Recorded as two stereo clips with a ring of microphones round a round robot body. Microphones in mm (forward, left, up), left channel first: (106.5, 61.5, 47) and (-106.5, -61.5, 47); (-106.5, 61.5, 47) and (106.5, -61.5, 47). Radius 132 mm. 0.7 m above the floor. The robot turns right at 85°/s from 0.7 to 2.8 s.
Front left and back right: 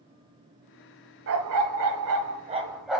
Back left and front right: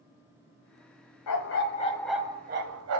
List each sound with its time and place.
1.3 s a dog barking: 170° left, 1.5 m; by 3.0 s 60° right, 1.5 m